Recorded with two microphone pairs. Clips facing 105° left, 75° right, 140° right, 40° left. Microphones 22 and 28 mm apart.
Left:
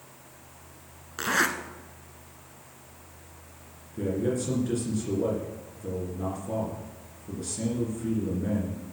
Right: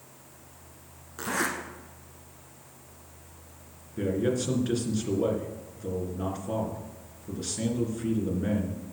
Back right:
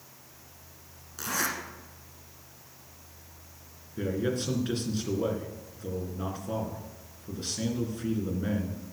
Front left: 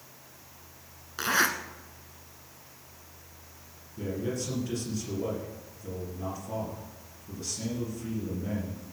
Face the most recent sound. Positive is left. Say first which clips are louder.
# right 1 dB, back right 3 dB
turn(degrees=-115)